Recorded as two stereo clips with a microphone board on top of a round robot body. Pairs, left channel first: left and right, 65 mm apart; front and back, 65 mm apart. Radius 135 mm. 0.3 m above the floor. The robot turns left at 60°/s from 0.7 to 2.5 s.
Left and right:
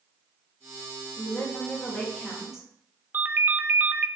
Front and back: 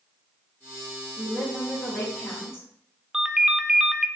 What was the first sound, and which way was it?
A woman speaking, 70° left.